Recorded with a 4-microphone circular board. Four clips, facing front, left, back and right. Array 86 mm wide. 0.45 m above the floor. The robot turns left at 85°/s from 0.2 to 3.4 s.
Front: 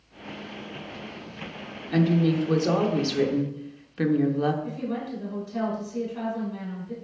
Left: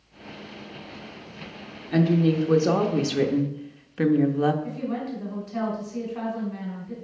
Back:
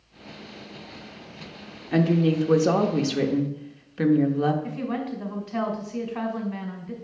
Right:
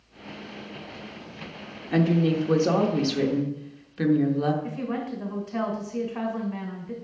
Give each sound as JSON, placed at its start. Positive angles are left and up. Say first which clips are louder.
{"t": 1.9, "sound": "a woman speaking", "louder": "left 1 dB, back 1 dB", "azimuth_deg": -130, "distance_m": 0.8}
{"t": 4.6, "sound": "a woman speaking", "louder": "even, back 2 dB", "azimuth_deg": -145, "distance_m": 2.0}